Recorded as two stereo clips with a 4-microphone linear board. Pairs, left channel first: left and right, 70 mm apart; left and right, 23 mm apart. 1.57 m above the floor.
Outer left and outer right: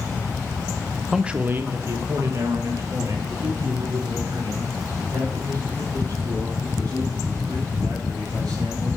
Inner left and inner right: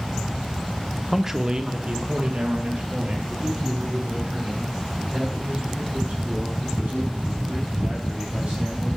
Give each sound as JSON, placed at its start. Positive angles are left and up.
{"t": 1.1, "sound": "a man speaking", "side_deg": -5, "distance_m": 0.8}